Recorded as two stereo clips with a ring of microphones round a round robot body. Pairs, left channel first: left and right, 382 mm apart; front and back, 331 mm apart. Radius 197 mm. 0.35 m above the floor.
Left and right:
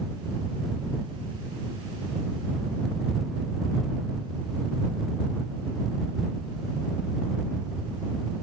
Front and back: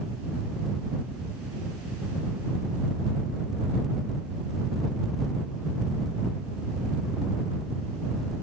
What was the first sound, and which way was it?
Only background noise.